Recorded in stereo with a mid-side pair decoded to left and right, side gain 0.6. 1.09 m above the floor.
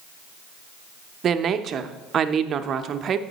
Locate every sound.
1.2 s a woman speaking: 45° right, 0.6 m